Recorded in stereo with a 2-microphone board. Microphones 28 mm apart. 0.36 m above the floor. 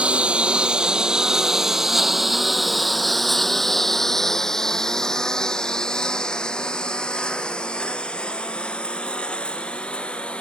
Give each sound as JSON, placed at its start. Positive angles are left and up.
{"t": 0.0, "sound": "a lawn mower", "side_deg": -40}